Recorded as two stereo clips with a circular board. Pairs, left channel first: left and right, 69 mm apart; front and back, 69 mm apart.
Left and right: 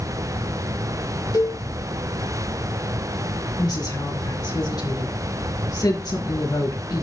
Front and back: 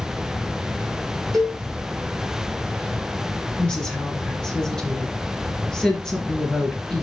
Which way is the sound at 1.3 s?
85° left.